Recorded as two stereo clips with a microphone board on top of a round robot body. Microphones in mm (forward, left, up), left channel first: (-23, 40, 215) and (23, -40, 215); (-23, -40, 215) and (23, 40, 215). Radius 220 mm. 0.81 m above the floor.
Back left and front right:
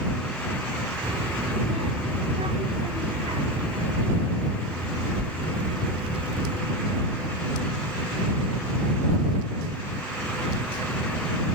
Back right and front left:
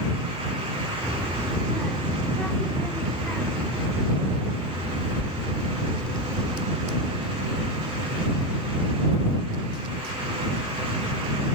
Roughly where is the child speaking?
Ahead right.